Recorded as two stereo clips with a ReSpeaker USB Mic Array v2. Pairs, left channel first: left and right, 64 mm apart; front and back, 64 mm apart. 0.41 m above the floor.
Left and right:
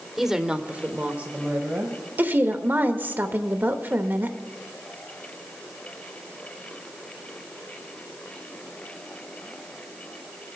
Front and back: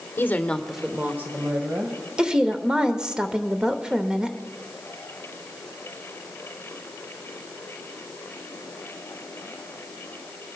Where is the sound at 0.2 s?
5° right, 1.0 m; by 2.0 s 150° right, 2.0 m.